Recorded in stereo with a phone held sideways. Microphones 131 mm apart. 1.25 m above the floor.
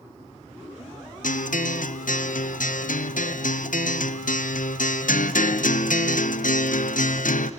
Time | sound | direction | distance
1.2 | a guitar | 85° left | 0.7 m